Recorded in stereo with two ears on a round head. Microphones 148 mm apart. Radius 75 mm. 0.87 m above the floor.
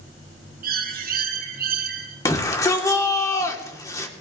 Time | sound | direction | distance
0.6 | a bird | 60° right (ahead or behind) | 1.7 m
2.2 | a shout | 20° left (ahead or behind) | 2 m